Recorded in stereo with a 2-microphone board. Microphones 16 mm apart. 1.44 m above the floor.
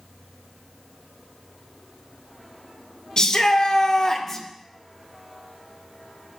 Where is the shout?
45° left (ahead or behind), 1.7 m; by 4.5 s 20° left (ahead or behind), 1.0 m.